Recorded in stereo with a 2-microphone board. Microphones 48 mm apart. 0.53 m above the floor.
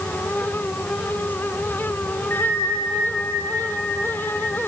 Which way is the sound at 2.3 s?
45° left (ahead or behind).